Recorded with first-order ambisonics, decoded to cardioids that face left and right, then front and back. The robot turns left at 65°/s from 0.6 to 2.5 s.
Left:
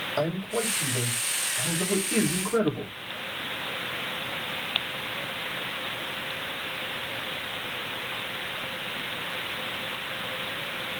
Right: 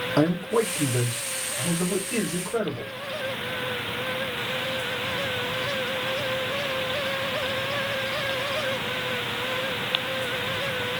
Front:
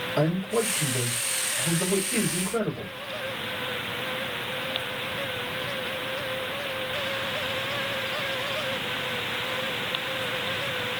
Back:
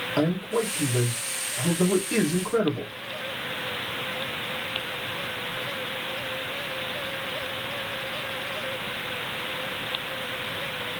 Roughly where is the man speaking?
Right.